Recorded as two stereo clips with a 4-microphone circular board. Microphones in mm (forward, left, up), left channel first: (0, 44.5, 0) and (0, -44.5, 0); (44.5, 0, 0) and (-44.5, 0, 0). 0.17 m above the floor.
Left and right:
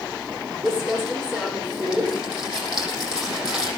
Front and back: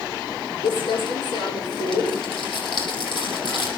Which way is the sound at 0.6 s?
10° right.